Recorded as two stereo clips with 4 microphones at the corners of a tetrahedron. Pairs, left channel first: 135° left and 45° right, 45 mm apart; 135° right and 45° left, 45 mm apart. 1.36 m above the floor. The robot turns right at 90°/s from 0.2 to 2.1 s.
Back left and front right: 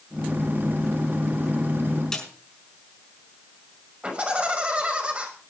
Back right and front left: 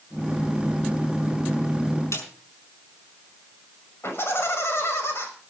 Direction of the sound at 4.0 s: 105° right.